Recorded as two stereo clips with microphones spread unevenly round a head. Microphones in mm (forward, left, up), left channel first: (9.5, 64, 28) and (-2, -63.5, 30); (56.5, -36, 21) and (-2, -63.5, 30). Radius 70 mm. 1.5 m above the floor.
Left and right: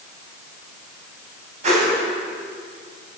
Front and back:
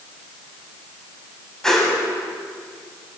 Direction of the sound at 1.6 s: 55° right.